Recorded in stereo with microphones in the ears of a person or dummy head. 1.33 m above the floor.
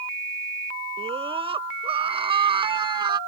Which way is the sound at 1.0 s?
30° right (ahead or behind).